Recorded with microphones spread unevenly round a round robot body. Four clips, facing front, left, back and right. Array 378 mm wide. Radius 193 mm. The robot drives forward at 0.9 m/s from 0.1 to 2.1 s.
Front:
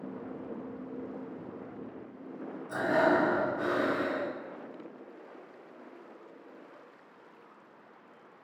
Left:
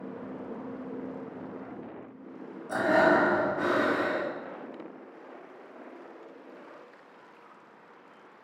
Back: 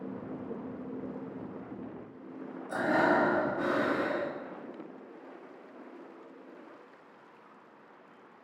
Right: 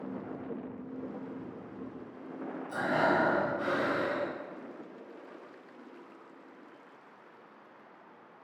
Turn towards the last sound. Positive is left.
turn(degrees=85)